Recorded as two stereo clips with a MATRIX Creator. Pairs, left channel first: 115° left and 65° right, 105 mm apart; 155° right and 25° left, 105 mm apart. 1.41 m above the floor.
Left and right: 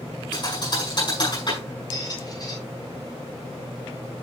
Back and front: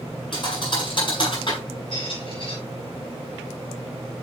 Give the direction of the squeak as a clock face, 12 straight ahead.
7 o'clock.